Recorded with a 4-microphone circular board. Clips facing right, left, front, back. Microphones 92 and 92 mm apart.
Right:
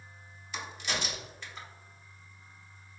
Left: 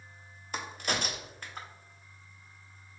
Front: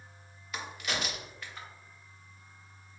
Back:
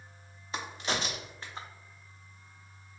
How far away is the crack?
About 0.7 m.